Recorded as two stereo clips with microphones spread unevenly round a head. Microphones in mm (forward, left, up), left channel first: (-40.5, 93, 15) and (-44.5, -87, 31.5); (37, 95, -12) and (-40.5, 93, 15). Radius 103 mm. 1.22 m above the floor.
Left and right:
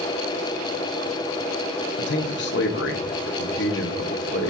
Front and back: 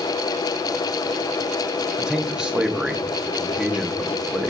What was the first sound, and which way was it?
A man speaking, 105° left.